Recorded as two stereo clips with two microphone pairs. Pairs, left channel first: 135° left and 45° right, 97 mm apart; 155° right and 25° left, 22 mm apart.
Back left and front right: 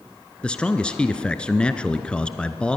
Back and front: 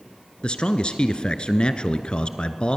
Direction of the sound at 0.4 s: 150° right.